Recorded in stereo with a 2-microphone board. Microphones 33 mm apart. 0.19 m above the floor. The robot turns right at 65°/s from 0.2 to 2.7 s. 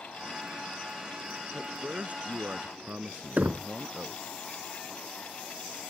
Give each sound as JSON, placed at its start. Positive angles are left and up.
{"t": 1.5, "sound": "a man speaking", "azimuth_deg": -150}
{"t": 3.4, "sound": "knocking", "side_deg": -55}